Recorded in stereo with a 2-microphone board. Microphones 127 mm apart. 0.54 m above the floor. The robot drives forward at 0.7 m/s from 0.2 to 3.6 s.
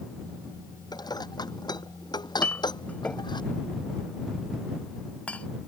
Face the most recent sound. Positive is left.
turn(degrees=10)  # may be behind; listen again after turning